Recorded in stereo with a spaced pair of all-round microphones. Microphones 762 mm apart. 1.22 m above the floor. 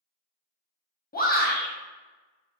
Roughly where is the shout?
Centre.